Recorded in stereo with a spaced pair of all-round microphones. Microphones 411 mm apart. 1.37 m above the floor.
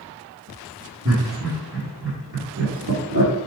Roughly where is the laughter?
Right.